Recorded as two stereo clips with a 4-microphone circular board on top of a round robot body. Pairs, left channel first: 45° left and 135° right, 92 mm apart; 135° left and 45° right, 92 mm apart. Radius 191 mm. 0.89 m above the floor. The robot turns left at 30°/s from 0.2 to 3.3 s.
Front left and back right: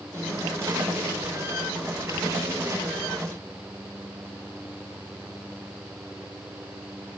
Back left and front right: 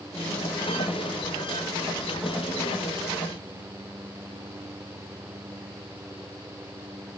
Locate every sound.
Only background noise.